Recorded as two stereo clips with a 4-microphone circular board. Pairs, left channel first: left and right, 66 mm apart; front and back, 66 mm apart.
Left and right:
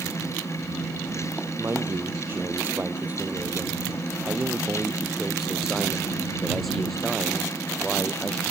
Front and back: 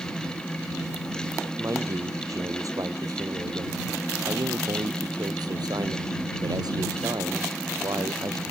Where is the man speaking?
140° right; by 8.4 s 170° left.